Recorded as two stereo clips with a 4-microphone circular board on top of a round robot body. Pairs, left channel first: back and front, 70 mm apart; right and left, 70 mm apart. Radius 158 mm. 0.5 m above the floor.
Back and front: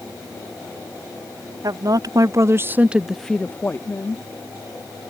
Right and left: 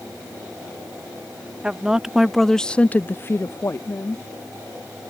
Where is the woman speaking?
15° left; by 4.2 s 135° right.